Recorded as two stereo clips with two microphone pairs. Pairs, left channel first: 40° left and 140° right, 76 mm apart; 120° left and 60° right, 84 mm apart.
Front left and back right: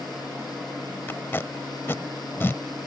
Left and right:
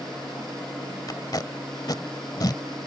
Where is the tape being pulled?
95° left.